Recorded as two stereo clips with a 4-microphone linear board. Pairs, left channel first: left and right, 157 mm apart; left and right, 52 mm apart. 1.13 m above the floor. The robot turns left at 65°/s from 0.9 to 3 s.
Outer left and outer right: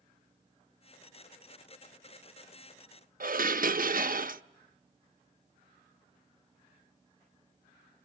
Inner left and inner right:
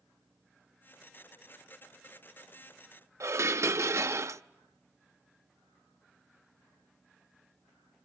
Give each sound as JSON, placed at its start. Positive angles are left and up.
{"t": 3.2, "sound": "dishes clattering", "side_deg": -65, "distance_m": 0.5}